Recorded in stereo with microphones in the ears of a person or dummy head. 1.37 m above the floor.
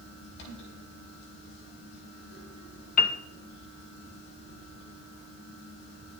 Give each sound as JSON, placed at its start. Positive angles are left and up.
{"t": 0.0, "sound": "a fan", "side_deg": 65, "distance_m": 4.5}
{"t": 3.0, "sound": "a piano", "side_deg": 40, "distance_m": 0.9}